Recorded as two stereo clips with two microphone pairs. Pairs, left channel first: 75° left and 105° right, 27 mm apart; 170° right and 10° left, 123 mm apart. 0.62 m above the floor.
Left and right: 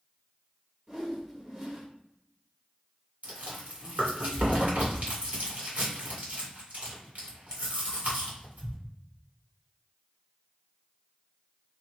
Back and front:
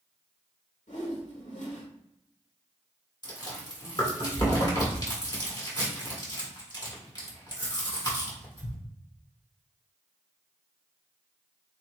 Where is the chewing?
120° right, 2 m.